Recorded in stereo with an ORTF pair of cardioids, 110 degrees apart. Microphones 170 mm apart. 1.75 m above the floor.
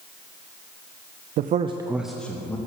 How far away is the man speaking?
About 0.7 m.